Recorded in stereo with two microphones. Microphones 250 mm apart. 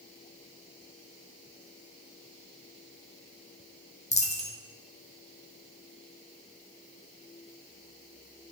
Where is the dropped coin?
25° left (ahead or behind), 0.5 m.